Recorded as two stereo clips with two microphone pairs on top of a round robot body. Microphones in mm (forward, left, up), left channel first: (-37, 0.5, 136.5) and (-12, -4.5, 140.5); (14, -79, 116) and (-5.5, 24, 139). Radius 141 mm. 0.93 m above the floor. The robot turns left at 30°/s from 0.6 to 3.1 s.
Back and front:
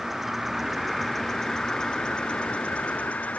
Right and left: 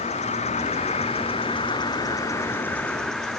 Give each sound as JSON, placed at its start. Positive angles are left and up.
{"t": 0.0, "sound": "an insect", "azimuth_deg": -90, "distance_m": 1.2}